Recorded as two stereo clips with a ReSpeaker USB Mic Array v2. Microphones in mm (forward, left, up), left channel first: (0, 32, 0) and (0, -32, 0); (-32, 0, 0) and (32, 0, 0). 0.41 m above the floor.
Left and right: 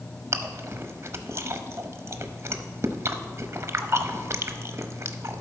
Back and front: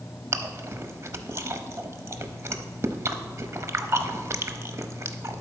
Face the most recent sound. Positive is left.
turn(degrees=-45)